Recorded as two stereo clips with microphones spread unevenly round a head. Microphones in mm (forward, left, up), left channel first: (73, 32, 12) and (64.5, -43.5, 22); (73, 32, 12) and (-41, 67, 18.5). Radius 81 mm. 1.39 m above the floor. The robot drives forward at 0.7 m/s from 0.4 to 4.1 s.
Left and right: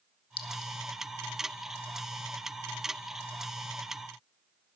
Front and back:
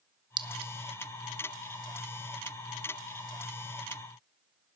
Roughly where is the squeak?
No squeak in this recording.